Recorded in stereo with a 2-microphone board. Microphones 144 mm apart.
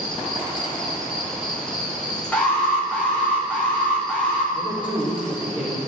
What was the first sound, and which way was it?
An insect, 5° left (ahead or behind).